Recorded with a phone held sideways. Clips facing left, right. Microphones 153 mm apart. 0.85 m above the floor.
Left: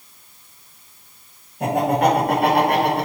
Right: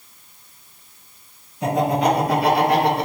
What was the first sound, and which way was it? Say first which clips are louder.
Laughter: left 1 dB; 65° left (ahead or behind).